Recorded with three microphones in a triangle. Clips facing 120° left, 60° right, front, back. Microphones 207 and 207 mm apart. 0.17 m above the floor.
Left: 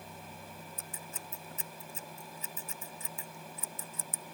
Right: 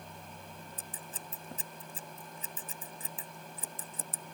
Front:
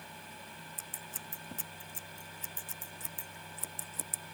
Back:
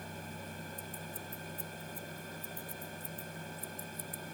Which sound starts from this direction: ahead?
Scissors, at 0.8 s.